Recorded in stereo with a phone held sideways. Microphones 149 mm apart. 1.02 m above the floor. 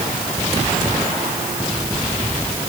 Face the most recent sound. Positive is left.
No sound to turn to.